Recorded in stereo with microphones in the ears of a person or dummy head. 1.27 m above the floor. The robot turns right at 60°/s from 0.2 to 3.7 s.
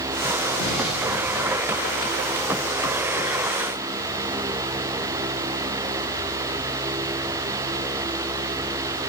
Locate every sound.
0.6 s an explosion: 130° left, 1.9 m; by 1.7 s 160° right, 1.9 m